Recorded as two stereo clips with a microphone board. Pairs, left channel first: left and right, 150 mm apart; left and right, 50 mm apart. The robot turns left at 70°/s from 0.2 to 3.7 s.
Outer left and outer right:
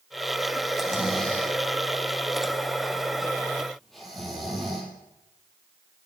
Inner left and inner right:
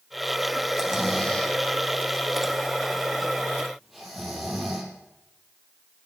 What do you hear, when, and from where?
0.7 s snoring: 30° right (ahead or behind), 3.5 m; by 4.9 s centre (ahead or behind), 3.5 m